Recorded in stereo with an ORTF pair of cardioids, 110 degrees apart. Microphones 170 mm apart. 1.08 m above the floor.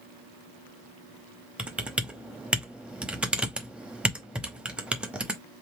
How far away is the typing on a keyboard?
About 0.9 m.